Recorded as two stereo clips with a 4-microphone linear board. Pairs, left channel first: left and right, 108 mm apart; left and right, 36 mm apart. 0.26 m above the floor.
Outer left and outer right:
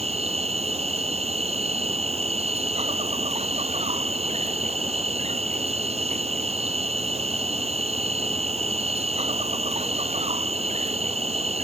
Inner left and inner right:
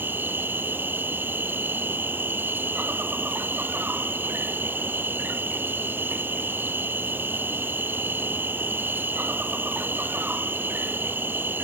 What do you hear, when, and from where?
0.0 s an insect: 75° right (ahead or behind)